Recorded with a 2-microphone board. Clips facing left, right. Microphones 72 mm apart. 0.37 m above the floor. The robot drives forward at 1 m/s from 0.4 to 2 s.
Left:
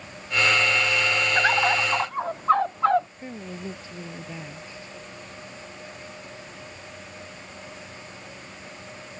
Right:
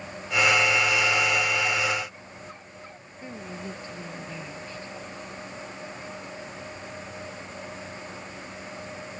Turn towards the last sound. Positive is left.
turn(degrees=15)  # may be behind; listen again after turning